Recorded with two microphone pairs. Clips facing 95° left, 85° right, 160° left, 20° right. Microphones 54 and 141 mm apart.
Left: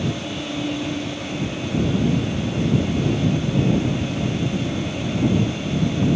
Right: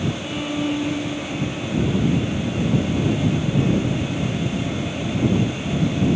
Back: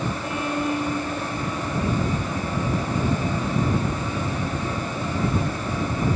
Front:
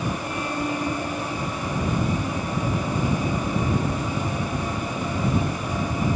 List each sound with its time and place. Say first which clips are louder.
0.2 s a violin: right 2 dB, back 2 dB; 125° right